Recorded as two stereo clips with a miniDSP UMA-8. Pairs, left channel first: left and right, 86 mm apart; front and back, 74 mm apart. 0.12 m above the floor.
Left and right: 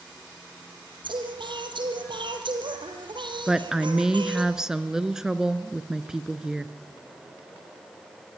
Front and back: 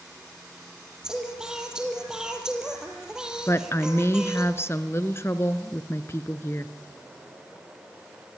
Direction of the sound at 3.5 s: 10° right.